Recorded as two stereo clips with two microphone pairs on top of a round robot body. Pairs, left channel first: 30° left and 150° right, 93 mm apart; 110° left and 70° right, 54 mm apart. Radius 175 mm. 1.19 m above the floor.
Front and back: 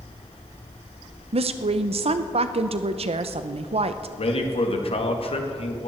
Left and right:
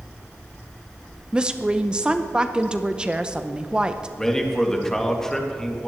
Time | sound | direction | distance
1.3 | a woman speaking | 145° right | 0.8 m
4.2 | a man speaking | 30° left | 2 m